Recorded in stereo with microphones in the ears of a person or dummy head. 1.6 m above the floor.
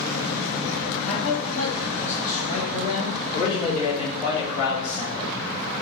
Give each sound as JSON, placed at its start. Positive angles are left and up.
{"t": 1.1, "sound": "a man speaking", "side_deg": 45, "distance_m": 1.7}
{"t": 3.3, "sound": "a man speaking", "side_deg": 35, "distance_m": 2.0}